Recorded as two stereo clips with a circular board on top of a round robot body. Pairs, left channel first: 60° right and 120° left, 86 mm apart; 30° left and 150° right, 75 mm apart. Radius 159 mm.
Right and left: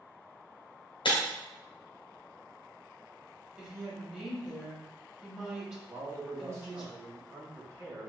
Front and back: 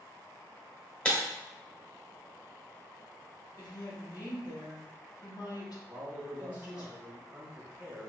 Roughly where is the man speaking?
Behind left.